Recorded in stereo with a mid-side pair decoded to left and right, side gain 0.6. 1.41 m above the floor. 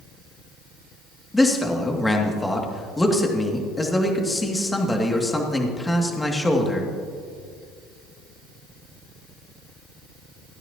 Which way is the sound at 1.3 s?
10° left.